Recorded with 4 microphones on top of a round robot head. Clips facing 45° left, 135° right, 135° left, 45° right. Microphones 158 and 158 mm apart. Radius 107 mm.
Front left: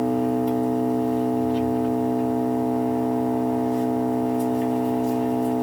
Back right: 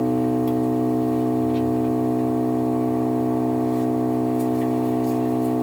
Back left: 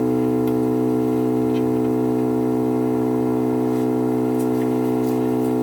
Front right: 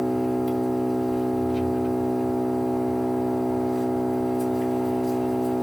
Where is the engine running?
145° left, 1.2 m.